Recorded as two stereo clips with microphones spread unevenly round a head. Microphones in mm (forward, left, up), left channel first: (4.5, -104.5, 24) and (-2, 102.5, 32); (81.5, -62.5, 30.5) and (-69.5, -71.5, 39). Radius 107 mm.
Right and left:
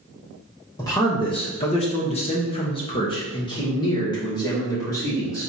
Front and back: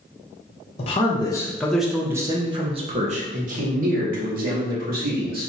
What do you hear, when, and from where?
0.8 s a man speaking: 20° right, 0.8 m; by 5.5 s 165° right, 2 m